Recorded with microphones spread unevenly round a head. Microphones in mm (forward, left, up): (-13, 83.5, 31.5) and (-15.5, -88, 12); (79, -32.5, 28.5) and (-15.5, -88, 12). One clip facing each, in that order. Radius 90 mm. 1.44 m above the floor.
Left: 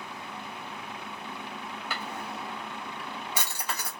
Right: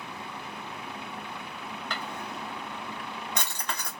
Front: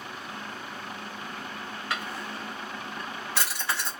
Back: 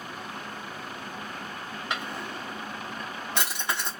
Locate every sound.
1.9 s a drawer: 145° left, 0.8 m